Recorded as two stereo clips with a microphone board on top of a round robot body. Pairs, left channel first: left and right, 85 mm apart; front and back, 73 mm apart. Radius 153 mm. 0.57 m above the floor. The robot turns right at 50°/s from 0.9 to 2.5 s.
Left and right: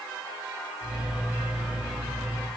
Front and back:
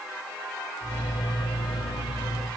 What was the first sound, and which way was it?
Only background noise.